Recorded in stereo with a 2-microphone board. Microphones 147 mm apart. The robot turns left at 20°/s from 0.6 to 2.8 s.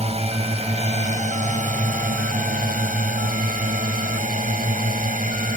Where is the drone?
50° right; by 5.6 s 95° right.